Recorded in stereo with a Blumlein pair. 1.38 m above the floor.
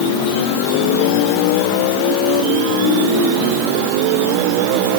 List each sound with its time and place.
Only background noise.